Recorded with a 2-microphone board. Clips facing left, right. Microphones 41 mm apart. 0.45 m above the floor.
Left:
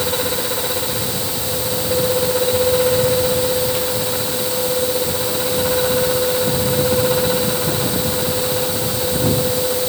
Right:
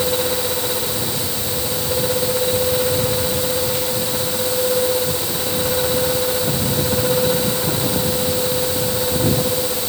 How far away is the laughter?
I don't hear laughter.